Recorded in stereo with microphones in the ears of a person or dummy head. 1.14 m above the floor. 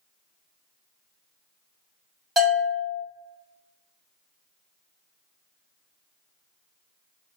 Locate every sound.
2.4 s a bell: centre (ahead or behind), 1.1 m